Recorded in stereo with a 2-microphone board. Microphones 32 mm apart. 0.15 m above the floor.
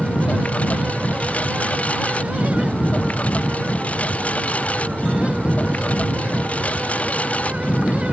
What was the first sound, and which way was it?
A lawn mower, 45° left (ahead or behind).